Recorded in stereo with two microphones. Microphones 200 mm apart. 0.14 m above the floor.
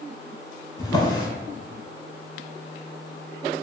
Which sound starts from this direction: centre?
A drawer, at 0.8 s.